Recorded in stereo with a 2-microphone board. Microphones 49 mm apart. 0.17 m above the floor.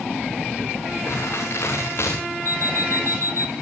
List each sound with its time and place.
1.1 s crumpling: 65° left (ahead or behind), 10 m
2.5 s an alarm clock: 55° left (ahead or behind), 0.9 m